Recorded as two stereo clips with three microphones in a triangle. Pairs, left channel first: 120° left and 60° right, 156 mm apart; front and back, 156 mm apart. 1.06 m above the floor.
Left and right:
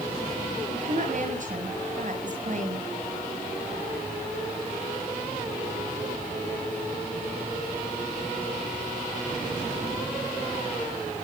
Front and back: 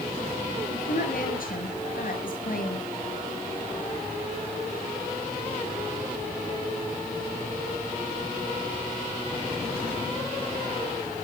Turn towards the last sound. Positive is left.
turn(degrees=-25)